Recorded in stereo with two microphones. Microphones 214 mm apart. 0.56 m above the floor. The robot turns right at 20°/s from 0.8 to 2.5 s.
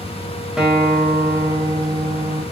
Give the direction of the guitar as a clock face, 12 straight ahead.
6 o'clock.